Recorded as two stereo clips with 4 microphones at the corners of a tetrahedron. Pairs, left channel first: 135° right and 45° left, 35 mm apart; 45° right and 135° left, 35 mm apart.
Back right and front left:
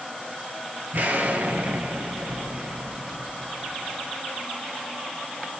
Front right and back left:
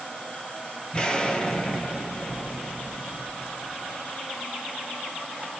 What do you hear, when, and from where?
0.9 s an explosion: 20° left, 0.8 m